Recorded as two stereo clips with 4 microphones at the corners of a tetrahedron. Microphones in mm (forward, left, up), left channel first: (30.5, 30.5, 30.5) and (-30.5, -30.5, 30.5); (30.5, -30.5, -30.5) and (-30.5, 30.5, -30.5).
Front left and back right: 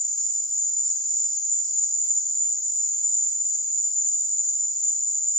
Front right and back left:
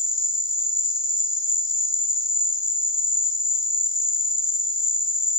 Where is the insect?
45° right, 3.5 m.